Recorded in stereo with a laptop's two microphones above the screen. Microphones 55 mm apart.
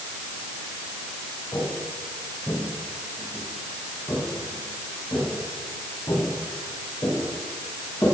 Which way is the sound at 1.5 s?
65° left (ahead or behind).